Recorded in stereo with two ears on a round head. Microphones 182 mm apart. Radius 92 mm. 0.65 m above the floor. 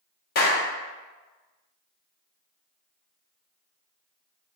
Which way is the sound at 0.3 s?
45° left (ahead or behind).